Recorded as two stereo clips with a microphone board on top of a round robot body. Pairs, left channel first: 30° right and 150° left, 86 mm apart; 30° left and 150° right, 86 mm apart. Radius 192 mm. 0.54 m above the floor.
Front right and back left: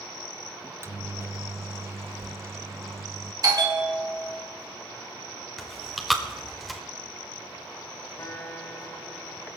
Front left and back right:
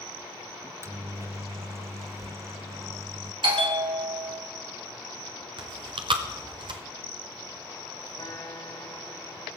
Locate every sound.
0.6 s a microwave: 175° right, 0.6 m
3.4 s a bell: 165° right, 1.9 m
5.6 s chewing: 120° right, 0.6 m
8.2 s a guitar: 10° left, 7 m